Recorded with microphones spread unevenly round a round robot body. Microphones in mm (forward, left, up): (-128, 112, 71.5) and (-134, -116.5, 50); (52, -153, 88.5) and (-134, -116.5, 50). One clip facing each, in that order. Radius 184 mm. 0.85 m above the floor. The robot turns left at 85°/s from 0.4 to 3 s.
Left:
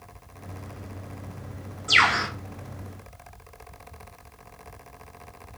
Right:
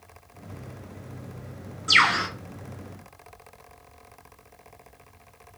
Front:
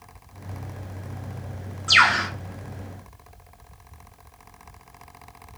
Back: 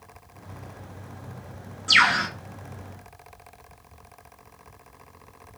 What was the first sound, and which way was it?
A bird, 115° right.